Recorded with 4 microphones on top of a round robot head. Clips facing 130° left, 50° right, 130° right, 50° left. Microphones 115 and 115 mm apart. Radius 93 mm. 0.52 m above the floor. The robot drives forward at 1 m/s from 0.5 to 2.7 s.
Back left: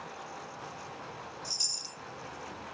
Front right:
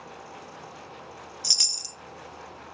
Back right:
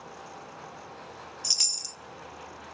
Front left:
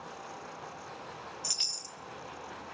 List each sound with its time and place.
1.4 s a chime: 60° right, 0.6 m; by 2.0 s 110° right, 0.6 m